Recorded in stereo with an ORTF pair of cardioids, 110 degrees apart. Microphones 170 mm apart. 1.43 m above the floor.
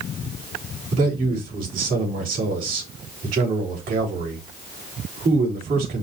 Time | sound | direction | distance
0.9 | a man speaking | 55° right | 4 m